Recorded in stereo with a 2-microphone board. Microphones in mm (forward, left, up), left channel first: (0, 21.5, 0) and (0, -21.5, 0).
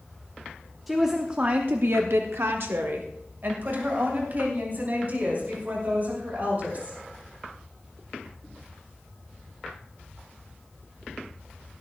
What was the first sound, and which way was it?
A woman speaking, 5° right (ahead or behind).